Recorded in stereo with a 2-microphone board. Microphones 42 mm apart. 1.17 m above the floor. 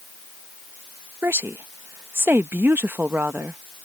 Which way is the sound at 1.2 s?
60° right (ahead or behind).